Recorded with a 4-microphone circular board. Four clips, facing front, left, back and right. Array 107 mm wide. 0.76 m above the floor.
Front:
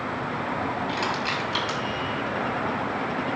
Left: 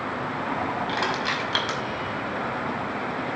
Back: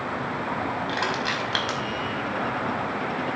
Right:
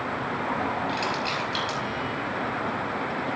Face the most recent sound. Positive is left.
turn(degrees=135)